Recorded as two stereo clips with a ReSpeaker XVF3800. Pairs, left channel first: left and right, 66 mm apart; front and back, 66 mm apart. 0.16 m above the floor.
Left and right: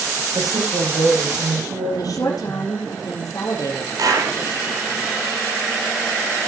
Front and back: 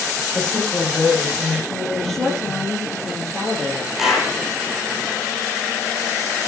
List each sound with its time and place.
0.3 s a woman speaking: 80° right, 7 m; by 2.7 s 85° right, 9.5 m
1.9 s a woman speaking: 85° left, 3.5 m
4.0 s a clap: 95° right, 4.5 m